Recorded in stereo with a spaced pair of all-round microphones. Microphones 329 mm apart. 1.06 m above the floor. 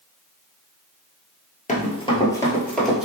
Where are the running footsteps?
25° left (ahead or behind), 1.1 m; by 3.1 s centre (ahead or behind), 1.3 m.